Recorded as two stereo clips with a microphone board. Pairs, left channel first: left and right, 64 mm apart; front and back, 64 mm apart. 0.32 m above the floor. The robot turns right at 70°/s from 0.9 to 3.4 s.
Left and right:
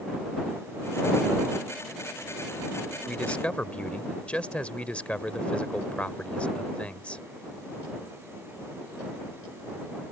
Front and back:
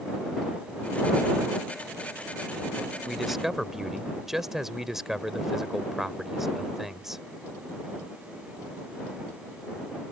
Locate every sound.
3.1 s a man speaking: 85° left; by 7.2 s 105° left